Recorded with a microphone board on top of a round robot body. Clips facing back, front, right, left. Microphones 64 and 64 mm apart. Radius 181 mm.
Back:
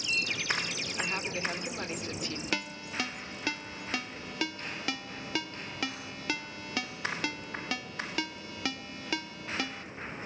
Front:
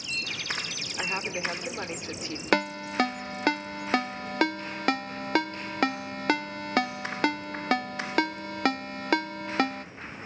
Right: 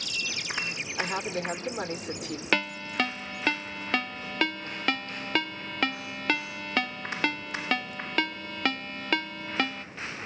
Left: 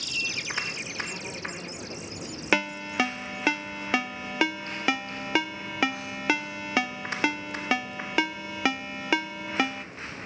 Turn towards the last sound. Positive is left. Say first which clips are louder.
# front 13 dB, left 2 dB
turn(degrees=10)